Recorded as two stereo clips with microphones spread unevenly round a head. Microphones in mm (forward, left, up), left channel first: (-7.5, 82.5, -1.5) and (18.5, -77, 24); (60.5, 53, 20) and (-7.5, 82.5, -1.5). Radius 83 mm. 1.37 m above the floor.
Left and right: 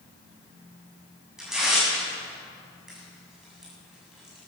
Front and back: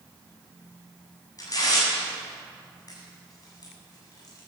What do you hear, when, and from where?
1.4 s tearing paper: 5° left, 7.5 m